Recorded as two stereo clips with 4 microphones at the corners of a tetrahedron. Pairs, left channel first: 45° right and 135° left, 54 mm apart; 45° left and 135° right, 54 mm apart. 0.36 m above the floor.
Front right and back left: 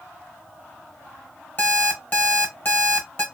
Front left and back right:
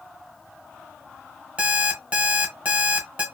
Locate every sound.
1.6 s an alarm clock: 80° right, 0.9 m